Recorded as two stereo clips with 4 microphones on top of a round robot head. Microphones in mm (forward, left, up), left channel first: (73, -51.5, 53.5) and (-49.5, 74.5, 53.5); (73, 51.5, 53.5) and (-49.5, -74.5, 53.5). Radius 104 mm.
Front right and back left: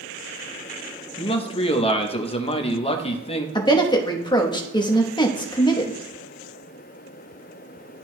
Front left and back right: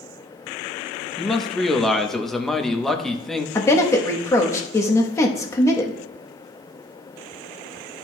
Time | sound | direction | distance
1.2 | a man speaking | 40° right | 0.9 m
3.5 | a woman speaking | 10° right | 1.1 m